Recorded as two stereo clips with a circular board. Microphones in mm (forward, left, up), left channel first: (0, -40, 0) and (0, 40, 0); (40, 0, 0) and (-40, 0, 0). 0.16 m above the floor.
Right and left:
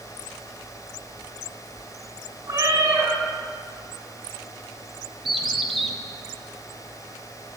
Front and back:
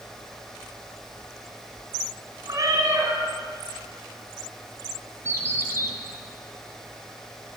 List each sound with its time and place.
2.5 s a cat meowing: 140° left, 4.5 m
5.2 s a bird: 175° left, 1.5 m